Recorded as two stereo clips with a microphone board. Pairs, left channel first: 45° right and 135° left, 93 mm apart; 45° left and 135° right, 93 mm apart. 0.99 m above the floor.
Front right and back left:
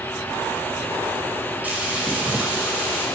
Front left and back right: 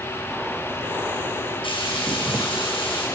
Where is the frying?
60° left, 6 m.